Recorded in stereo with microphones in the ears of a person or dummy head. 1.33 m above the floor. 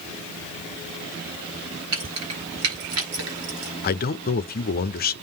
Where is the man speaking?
40° left (ahead or behind), 0.7 m.